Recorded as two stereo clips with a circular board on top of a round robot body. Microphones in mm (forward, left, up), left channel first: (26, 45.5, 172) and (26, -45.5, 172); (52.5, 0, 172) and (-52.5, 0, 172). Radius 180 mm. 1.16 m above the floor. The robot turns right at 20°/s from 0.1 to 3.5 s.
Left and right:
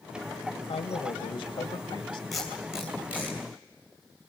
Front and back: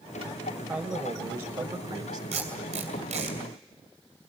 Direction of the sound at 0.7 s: 120° left.